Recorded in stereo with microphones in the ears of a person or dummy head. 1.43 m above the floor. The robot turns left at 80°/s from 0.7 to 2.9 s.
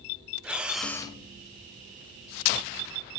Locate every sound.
0.4 s breathing: 175° right, 0.6 m; by 1.2 s 145° left, 0.6 m